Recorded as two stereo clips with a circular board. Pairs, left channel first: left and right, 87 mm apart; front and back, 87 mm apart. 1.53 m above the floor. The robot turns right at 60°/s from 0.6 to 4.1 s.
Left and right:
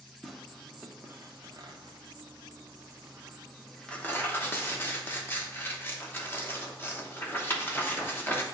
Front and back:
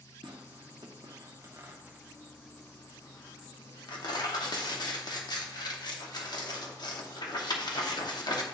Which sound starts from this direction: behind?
Tearing paper, at 0.2 s.